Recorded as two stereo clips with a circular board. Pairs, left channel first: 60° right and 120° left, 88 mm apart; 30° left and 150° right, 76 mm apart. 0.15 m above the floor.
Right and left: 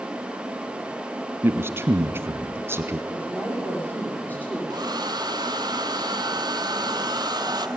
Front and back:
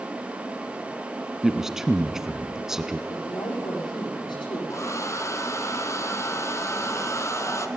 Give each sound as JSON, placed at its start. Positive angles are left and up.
{"t": 1.4, "sound": "a man speaking", "azimuth_deg": 130, "distance_m": 1.1}
{"t": 3.1, "sound": "a woman speaking", "azimuth_deg": 10, "distance_m": 7.5}
{"t": 4.7, "sound": "a hair dryer", "azimuth_deg": 80, "distance_m": 1.0}